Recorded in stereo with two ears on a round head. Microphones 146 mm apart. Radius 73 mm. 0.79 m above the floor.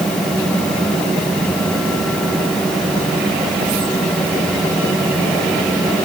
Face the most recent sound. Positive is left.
No sound to turn to.